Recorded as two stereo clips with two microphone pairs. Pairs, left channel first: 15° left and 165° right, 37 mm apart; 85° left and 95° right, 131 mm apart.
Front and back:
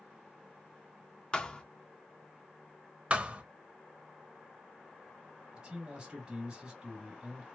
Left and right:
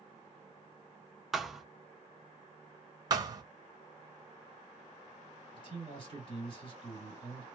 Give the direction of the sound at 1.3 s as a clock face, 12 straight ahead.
12 o'clock.